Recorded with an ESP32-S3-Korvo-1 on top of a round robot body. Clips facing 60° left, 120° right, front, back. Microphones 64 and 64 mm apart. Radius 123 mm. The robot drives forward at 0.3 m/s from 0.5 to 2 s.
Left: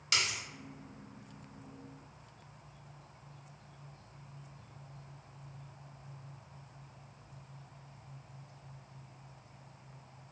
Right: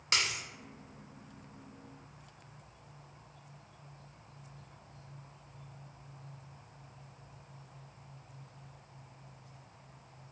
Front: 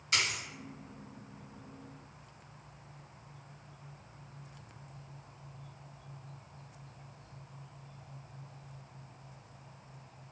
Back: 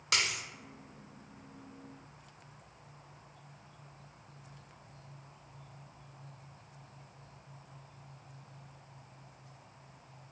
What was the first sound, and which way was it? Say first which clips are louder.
A dropped coin: right 1 dB, even; 175° right.